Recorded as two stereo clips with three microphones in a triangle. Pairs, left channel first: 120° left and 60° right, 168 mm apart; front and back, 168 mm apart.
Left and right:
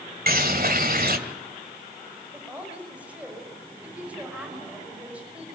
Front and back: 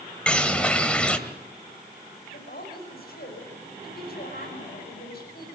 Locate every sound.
0.3 s a bird: 85° right, 1.8 m
2.3 s a woman speaking: 20° left, 6 m